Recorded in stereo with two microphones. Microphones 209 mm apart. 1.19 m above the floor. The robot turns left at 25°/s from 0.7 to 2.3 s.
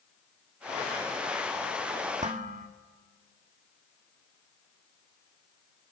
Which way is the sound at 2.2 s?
35° right (ahead or behind).